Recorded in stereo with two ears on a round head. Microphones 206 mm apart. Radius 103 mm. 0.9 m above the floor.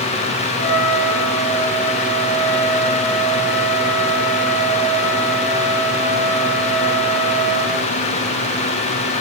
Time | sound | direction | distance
0.6 | a trumpet | 40° left (ahead or behind) | 2 m